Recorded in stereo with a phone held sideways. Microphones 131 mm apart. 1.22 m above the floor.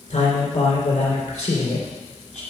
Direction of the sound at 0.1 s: 70° left (ahead or behind).